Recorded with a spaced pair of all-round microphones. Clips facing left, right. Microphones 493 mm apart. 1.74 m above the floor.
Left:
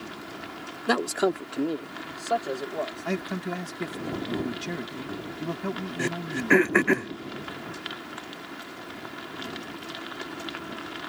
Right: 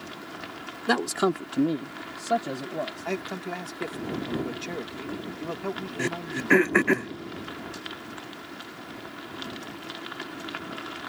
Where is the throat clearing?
Centre (ahead or behind).